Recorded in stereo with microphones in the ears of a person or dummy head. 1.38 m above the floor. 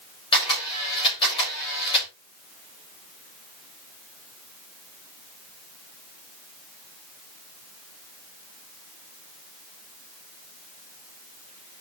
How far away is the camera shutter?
About 8 m.